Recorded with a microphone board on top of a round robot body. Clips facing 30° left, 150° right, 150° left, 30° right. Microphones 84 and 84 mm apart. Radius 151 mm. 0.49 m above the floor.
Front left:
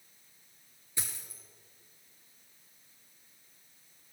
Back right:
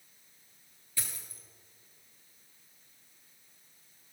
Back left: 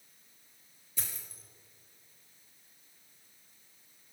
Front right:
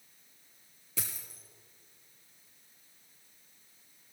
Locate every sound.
1.0 s a dropped coin: 40° right, 0.6 m